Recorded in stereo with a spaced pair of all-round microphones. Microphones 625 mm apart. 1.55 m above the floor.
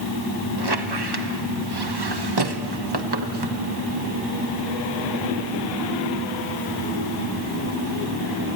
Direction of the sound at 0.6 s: 40° right (ahead or behind).